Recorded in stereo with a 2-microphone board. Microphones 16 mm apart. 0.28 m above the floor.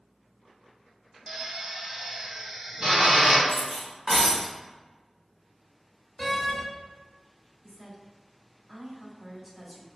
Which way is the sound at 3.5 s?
10° left (ahead or behind).